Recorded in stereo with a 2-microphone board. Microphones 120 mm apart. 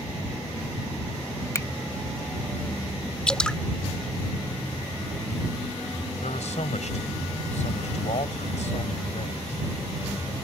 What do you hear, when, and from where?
1.6 s a finger snap: 25° left (ahead or behind)
3.3 s dripping: 10° left (ahead or behind)
6.2 s a man speaking: 75° left (ahead or behind)